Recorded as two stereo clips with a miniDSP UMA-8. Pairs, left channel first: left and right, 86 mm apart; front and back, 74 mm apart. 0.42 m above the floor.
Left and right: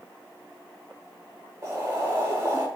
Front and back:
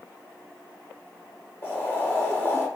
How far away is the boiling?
About 1.2 m.